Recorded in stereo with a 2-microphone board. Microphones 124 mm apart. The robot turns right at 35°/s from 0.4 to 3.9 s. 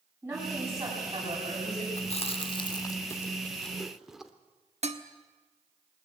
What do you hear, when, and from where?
0.2 s a woman speaking: 165° right, 10 m; by 1.9 s 115° right, 10 m
2.0 s chewing: 60° left (ahead or behind), 1.2 m; by 4.3 s 5° right (ahead or behind), 1.2 m
4.8 s dishes clattering: 60° right (ahead or behind), 1.2 m